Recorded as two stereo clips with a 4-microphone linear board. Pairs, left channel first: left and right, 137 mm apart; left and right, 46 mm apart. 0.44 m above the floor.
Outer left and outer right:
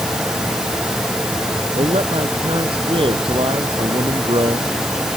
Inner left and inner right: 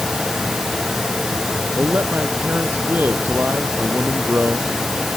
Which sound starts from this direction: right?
A man speaking, at 1.8 s.